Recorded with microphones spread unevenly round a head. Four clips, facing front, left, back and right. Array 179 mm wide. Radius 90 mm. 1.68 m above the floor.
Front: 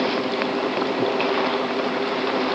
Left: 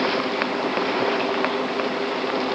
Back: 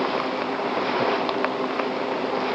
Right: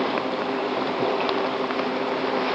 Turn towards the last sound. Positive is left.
No sound to turn to.